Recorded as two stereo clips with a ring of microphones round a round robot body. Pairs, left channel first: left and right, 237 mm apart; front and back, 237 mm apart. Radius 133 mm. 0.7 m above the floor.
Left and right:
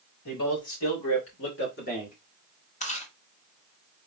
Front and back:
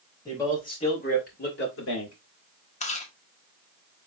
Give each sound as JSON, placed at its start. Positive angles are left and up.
{"t": 0.2, "sound": "a man speaking", "azimuth_deg": 80, "distance_m": 3.0}
{"t": 2.8, "sound": "chewing", "azimuth_deg": 45, "distance_m": 1.1}